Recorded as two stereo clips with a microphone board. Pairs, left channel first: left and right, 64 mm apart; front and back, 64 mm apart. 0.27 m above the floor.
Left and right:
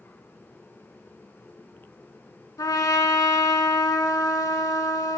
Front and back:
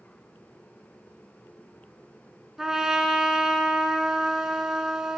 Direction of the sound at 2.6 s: 95° left.